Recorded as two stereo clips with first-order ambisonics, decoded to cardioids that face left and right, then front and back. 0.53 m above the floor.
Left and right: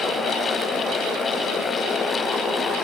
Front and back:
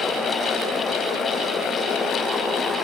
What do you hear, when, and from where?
Only background noise.